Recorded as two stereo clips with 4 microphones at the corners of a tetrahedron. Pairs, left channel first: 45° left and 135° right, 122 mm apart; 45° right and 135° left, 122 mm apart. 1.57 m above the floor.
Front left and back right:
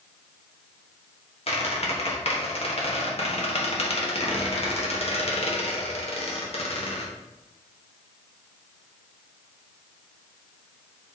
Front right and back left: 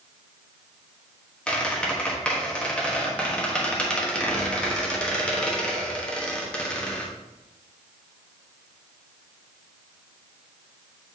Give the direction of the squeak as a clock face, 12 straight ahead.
11 o'clock.